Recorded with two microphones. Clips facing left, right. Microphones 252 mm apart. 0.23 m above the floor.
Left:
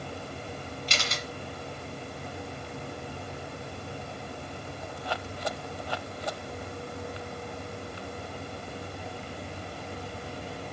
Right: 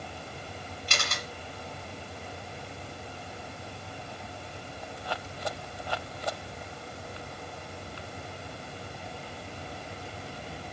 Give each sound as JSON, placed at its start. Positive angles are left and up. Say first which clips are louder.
{"t": 0.9, "sound": "a camera shutter", "louder": "even", "side_deg": -55, "distance_m": 1.8}